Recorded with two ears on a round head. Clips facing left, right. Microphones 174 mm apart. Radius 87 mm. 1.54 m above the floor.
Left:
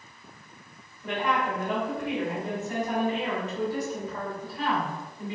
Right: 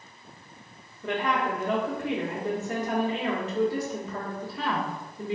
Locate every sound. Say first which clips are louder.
1.0 s a woman speaking: right 1 dB; 60° right (ahead or behind), 1.2 m